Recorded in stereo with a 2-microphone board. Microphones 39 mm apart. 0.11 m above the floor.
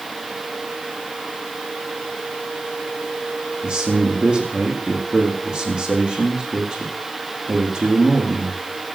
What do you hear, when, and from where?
3.6 s a man speaking: 25° right (ahead or behind), 4.5 m